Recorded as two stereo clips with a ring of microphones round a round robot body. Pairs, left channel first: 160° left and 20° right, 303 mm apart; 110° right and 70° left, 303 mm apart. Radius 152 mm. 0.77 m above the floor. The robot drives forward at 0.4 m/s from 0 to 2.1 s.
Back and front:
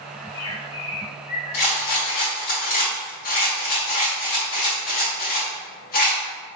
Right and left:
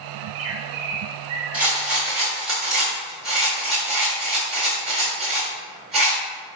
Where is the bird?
75° left, 1.1 m; by 2.0 s 115° left, 1.2 m.